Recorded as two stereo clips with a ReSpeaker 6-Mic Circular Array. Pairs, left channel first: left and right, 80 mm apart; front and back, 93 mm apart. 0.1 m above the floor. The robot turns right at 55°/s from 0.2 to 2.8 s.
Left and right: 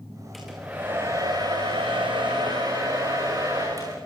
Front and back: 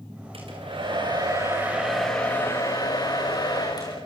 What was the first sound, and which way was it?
A hair dryer, straight behind.